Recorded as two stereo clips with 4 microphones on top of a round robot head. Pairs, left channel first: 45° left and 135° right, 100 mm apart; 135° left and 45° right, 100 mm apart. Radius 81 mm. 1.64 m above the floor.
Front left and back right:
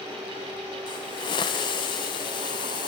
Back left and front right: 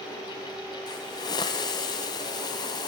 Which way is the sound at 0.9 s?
85° left.